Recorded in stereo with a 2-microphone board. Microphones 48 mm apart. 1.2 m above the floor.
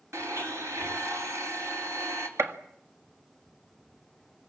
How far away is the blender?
About 3.5 m.